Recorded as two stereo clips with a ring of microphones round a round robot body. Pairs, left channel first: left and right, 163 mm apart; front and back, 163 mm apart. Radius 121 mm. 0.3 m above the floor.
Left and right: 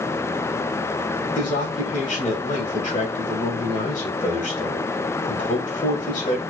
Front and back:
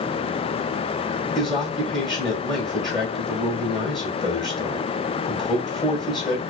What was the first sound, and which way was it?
A man speaking, 85° left.